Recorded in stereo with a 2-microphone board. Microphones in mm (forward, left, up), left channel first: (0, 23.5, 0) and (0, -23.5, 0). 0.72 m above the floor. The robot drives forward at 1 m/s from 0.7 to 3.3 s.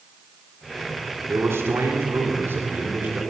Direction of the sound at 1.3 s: 65° right (ahead or behind).